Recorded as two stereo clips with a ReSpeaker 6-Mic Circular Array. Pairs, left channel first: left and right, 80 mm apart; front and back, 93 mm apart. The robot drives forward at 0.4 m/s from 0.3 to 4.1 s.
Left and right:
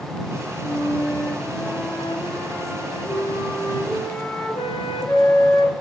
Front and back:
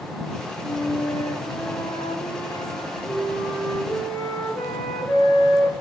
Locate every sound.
0.6 s a flute: 45° left, 3.5 m; by 5.7 s 70° left, 3 m